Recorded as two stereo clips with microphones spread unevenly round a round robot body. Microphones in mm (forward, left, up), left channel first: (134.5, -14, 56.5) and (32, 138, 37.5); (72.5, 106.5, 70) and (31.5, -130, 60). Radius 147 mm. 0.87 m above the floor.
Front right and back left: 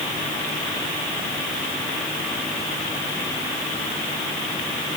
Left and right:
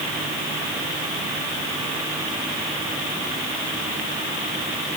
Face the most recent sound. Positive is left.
No sound to turn to.